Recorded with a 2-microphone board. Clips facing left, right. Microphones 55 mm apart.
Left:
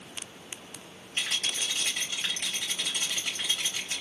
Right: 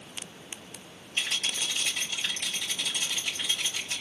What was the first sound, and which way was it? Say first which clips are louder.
A rattle: right 1 dB; 40° left (ahead or behind).